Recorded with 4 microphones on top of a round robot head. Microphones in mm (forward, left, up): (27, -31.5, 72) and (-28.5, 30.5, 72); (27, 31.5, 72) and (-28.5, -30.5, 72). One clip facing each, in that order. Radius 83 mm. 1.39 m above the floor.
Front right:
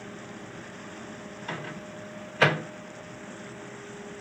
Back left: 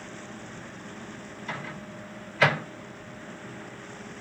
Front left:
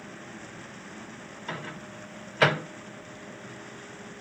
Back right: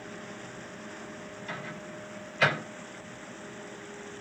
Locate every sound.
1.5 s a microwave: straight ahead, 1.7 m